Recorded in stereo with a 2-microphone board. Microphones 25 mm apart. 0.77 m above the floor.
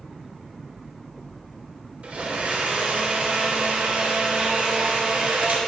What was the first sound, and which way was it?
A blender, 60° right (ahead or behind).